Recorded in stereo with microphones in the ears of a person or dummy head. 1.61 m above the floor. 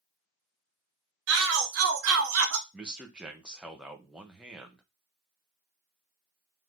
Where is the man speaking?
5° right (ahead or behind), 0.8 m.